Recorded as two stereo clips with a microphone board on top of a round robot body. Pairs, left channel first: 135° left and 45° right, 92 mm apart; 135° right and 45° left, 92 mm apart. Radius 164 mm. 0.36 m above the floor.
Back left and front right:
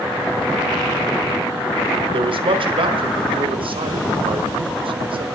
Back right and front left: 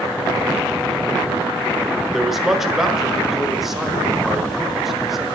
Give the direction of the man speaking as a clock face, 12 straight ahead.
1 o'clock.